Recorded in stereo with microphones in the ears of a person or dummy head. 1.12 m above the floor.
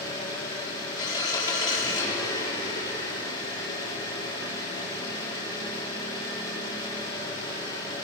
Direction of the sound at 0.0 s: 25° left (ahead or behind).